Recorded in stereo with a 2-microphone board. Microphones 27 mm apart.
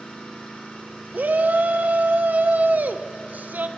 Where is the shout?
70° right (ahead or behind), 0.6 m.